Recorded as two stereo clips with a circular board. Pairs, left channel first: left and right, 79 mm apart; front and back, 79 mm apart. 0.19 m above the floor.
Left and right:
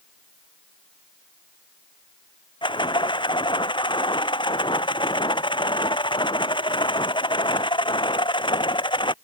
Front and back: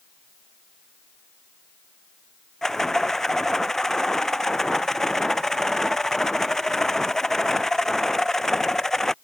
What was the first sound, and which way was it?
A rattle, 85° left.